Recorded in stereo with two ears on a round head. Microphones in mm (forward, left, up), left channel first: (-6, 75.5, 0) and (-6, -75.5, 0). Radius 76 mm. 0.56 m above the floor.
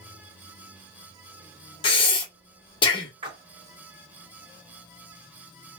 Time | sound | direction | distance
1.8 | breathing | 30° left (ahead or behind) | 1.0 m
3.2 | a splash | 30° right (ahead or behind) | 1.1 m